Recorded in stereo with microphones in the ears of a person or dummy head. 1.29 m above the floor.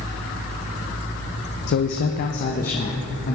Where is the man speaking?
55° left (ahead or behind), 0.6 m; by 3.4 s 45° left (ahead or behind), 1.5 m.